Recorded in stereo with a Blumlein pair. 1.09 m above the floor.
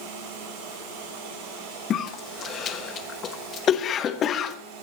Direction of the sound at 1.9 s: 30° left.